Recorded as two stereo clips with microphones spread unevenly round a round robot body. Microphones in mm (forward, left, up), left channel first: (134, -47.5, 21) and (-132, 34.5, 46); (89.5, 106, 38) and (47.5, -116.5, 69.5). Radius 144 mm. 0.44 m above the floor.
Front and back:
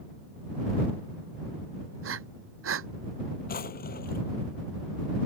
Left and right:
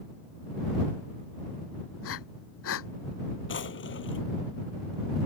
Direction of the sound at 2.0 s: 115° left.